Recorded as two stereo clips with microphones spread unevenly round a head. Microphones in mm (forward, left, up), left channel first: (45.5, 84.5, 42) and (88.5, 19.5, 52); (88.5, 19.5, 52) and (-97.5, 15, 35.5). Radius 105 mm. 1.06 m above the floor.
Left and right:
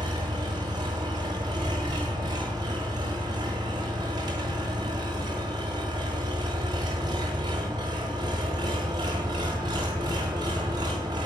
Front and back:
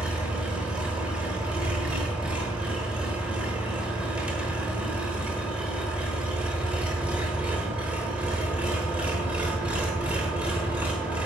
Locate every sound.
0.0 s an engine running: 90° right, 1.0 m